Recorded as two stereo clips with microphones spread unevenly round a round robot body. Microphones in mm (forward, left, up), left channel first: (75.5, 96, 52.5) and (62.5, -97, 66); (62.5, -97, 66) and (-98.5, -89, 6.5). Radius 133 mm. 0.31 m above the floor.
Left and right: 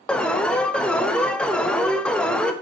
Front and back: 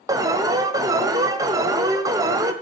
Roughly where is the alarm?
Behind.